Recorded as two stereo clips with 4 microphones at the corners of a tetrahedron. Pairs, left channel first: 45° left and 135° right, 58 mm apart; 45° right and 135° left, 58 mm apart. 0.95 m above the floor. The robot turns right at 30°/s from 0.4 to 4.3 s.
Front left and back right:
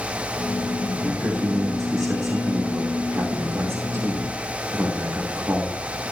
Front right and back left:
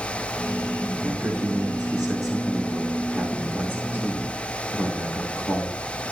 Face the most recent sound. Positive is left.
turn(degrees=-85)